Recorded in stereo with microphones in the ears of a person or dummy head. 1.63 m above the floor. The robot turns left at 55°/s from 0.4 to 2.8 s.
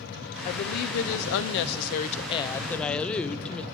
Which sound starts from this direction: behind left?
A woman speaking, at 0.5 s.